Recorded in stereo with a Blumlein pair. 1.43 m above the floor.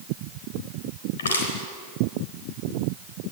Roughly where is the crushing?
Left.